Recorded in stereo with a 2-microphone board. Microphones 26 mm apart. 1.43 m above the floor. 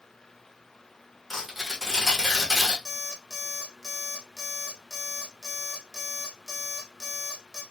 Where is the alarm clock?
Centre (ahead or behind), 1.0 m.